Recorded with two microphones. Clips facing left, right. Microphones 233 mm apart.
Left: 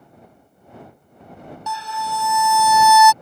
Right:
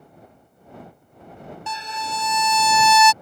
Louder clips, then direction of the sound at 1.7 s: Left 5 dB; 20° right (ahead or behind).